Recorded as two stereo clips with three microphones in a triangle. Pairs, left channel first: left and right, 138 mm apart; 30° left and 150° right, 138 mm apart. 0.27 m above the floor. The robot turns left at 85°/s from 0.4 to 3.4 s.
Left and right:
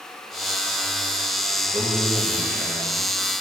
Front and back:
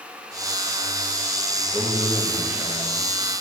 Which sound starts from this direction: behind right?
A man speaking, at 1.7 s.